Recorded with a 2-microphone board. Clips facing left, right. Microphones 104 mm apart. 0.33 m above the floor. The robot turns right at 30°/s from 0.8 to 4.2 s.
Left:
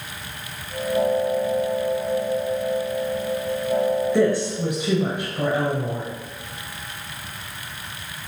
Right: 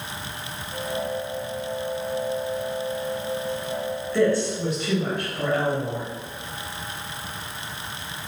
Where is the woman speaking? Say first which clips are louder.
Left 1 dB; 20° left (ahead or behind), 1.4 m.